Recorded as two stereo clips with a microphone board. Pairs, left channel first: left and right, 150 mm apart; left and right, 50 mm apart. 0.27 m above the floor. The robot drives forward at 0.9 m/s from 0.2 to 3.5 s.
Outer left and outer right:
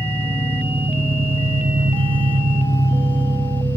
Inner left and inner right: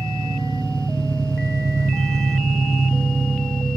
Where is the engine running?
25° right (ahead or behind), 1.9 m; by 3.8 s 30° right (ahead or behind), 1.4 m.